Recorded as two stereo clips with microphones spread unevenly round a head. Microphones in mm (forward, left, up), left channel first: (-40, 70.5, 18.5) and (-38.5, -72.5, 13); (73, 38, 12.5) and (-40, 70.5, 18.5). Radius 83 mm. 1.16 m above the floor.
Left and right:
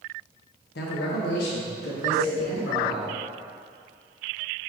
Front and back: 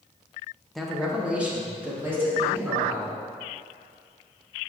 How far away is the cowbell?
About 2.0 m.